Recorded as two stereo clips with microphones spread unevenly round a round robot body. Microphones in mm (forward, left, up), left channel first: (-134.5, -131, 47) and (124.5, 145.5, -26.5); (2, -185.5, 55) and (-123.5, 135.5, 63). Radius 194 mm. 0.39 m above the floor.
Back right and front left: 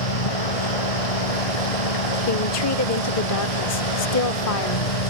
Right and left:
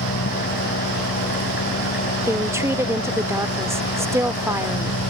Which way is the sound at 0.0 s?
130° right.